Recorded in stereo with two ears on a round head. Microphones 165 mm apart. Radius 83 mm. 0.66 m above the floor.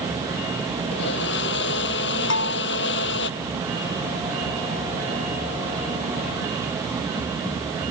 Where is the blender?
60° left (ahead or behind).